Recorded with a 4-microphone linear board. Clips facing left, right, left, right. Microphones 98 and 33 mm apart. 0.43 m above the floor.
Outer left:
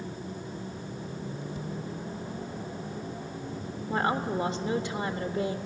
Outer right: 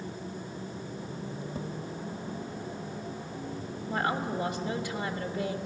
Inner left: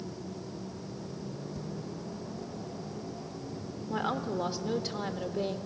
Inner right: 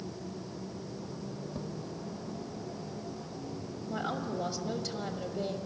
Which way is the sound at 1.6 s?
35° right (ahead or behind).